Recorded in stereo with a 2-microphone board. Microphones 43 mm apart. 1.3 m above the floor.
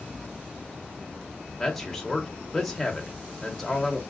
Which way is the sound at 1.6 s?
5° left (ahead or behind).